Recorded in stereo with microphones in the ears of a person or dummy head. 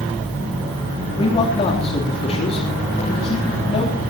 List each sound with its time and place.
1.2 s a man speaking: 35° left (ahead or behind), 3.5 m